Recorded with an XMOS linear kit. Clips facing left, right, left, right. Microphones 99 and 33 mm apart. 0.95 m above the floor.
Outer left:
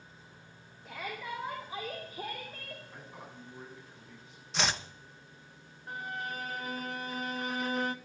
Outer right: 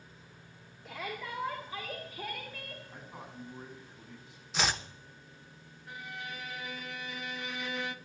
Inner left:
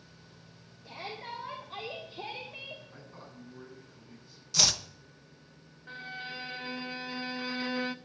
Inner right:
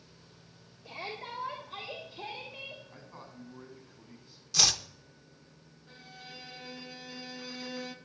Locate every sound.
0.8 s a shout: centre (ahead or behind), 2.5 m; by 2.8 s 40° left (ahead or behind), 1.9 m
2.9 s a man speaking: 15° right (ahead or behind), 8 m
4.5 s chopping: centre (ahead or behind), 0.6 m
5.9 s a violin: 40° left (ahead or behind), 0.5 m